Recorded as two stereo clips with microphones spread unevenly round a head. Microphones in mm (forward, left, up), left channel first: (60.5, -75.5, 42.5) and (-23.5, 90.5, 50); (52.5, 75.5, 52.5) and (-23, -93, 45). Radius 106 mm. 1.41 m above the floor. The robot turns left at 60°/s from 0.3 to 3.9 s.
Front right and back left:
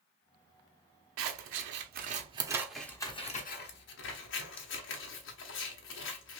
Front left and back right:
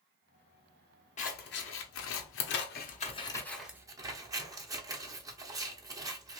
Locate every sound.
1.2 s scissors: 120° left, 0.9 m; by 6.4 s 40° right, 0.9 m